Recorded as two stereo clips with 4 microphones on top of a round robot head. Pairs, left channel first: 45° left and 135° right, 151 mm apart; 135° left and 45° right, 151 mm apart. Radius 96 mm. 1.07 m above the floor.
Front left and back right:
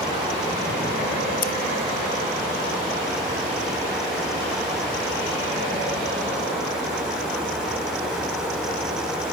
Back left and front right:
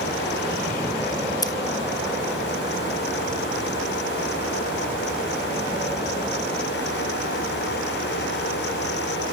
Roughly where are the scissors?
Left.